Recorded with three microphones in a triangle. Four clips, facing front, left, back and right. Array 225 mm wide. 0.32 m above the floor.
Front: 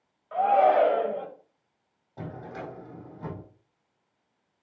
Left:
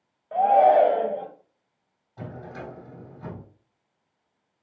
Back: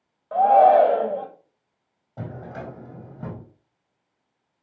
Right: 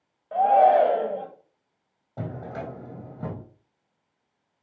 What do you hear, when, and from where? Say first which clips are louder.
0.3 s a shout: even, back 6 dB; straight behind, 1.9 m
2.2 s a drawer: right 4 dB, back 3 dB; 110° right, 4 m